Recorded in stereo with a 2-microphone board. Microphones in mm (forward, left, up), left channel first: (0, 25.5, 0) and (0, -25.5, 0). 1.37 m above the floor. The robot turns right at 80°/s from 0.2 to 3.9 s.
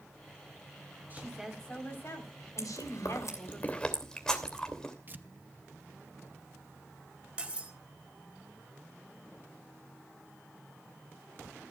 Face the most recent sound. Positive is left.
turn(degrees=-20)  # may be behind; listen again after turning